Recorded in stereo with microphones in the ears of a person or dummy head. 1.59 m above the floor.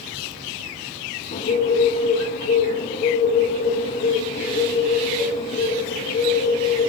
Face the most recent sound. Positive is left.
turn(degrees=35)  # may be behind; listen again after turning